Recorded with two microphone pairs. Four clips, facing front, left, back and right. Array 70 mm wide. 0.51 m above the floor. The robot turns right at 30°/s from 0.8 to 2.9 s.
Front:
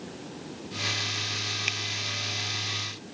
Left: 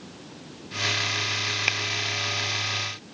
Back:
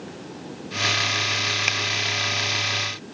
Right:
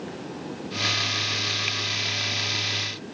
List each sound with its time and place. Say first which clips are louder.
1.7 s scissors: left 4 dB, back 6 dB; 140° left; by 1.8 s 145° left